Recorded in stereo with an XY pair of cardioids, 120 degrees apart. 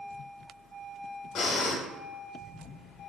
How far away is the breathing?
About 0.8 m.